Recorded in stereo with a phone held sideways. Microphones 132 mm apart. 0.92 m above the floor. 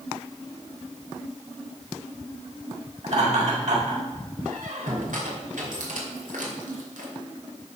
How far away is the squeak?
About 2.5 m.